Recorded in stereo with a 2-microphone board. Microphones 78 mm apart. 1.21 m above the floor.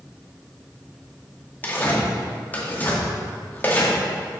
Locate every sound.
1.6 s tearing paper: 25° left (ahead or behind), 2.0 m